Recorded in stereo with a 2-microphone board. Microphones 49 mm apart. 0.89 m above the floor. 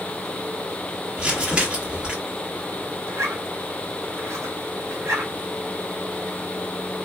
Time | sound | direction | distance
1.2 | crumpling | 25° right (ahead or behind) | 1.8 m
3.1 | a zipper | 75° right (ahead or behind) | 0.9 m